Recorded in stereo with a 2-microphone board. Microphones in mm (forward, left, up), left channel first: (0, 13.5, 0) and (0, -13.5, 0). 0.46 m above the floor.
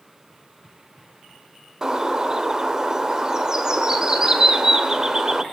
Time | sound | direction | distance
1.8 | a bird | 20° right (ahead or behind) | 1.2 m